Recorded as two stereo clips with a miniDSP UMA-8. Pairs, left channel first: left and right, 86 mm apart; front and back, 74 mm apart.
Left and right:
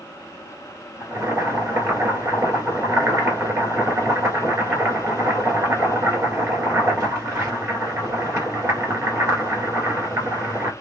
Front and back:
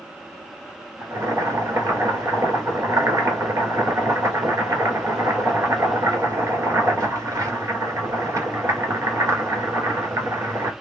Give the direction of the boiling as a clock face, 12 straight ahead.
5 o'clock.